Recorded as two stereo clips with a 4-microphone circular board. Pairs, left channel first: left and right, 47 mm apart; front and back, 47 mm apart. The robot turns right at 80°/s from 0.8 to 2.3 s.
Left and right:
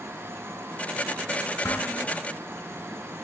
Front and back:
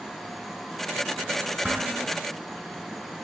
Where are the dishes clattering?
100° left, 6.5 m; by 2.0 s 135° left, 6.5 m.